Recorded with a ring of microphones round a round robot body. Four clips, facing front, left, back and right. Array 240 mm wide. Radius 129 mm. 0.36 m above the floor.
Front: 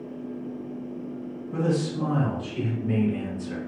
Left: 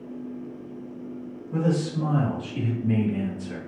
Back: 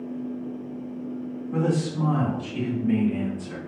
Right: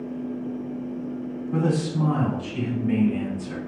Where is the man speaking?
110° right, 1.9 m.